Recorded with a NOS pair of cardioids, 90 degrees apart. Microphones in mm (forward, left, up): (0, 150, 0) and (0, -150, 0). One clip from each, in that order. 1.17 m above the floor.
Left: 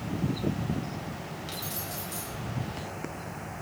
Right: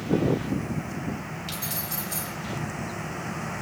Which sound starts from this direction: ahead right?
Keys jangling, at 1.5 s.